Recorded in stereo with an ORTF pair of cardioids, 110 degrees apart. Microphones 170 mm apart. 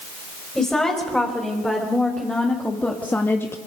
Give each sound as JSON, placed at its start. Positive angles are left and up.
{"t": 0.6, "sound": "a woman speaking", "azimuth_deg": 5, "distance_m": 5.0}